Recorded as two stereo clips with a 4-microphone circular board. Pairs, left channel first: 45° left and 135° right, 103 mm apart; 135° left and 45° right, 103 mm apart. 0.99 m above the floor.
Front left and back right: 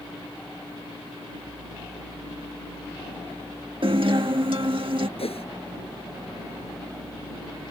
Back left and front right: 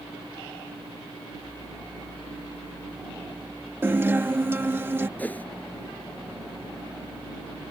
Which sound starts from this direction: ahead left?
A whoosh, at 5.2 s.